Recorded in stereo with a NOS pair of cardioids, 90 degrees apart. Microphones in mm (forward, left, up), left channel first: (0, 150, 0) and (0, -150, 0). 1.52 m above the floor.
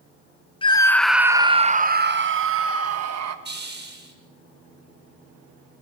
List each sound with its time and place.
0.6 s a scream: 15° left, 1.4 m; by 3.4 s 55° right, 2.5 m
3.5 s a hiss: 35° right, 7 m